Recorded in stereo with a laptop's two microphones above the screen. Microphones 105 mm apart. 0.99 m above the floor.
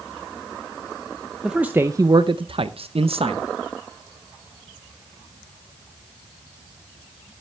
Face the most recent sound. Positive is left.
turn(degrees=-65)  # may be behind; listen again after turning